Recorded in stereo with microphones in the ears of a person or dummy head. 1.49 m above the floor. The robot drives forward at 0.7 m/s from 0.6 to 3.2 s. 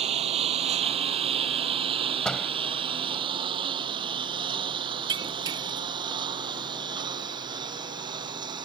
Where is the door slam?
Centre (ahead or behind).